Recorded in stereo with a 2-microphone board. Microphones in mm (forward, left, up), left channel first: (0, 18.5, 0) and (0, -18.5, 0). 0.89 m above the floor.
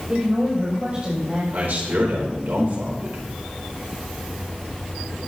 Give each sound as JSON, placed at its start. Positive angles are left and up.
{"t": 0.1, "sound": "a woman speaking", "side_deg": -35, "distance_m": 3.5}
{"t": 1.5, "sound": "a man speaking", "side_deg": -65, "distance_m": 4.0}